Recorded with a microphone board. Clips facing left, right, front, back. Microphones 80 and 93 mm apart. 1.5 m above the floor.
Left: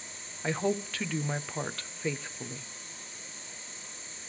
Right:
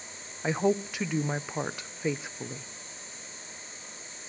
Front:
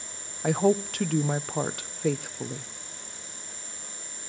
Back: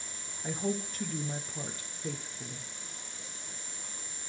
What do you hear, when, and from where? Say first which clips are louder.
0.4 s a woman speaking: right 4 dB, front 11 dB; 15° right, 0.7 m